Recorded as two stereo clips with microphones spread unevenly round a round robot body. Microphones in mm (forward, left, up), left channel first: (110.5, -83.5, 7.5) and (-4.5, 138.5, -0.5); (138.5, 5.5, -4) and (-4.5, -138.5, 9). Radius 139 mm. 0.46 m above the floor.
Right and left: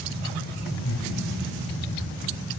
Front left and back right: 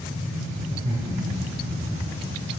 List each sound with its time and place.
0.7 s laughter: 80° right, 6.5 m; by 2.4 s 75° right, 7 m